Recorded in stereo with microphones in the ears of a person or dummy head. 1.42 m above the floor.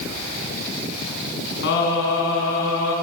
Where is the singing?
60° left (ahead or behind), 8.5 m.